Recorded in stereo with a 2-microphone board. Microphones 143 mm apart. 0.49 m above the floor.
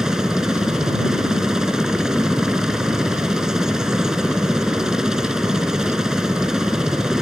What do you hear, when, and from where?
0.0 s a helicopter: 5° right (ahead or behind)